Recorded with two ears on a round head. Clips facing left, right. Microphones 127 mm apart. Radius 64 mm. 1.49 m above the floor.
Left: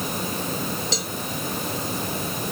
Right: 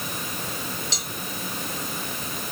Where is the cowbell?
75° left (ahead or behind).